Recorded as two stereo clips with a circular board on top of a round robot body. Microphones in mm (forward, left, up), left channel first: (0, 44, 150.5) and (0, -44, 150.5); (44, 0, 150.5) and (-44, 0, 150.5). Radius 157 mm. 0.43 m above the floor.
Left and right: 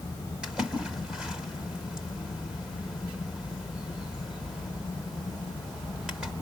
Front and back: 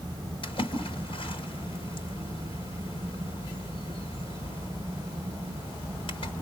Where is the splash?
10° right, 4 m.